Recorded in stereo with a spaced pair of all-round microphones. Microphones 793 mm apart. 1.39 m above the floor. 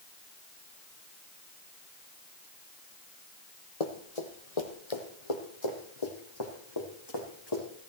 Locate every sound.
3.8 s running footsteps: 50° left (ahead or behind), 2.0 m; by 7.6 s 30° left (ahead or behind), 4.5 m